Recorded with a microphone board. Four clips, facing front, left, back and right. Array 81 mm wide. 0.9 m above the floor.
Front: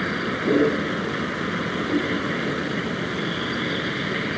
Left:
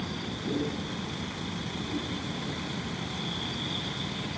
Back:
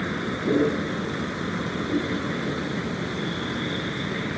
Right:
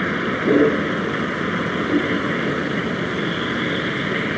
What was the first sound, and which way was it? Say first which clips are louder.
A vehicle: right 14 dB, front 3 dB; 75° right.